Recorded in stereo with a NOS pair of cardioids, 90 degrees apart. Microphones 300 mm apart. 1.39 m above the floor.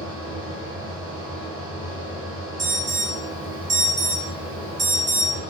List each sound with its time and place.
0.0 s a fan: 45° right, 1.1 m
2.6 s an alarm: 35° right, 1.0 m